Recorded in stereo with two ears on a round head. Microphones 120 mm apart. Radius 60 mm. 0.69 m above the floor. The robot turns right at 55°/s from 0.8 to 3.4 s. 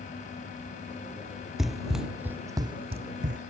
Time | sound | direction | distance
1.6 | running footsteps | centre (ahead or behind) | ?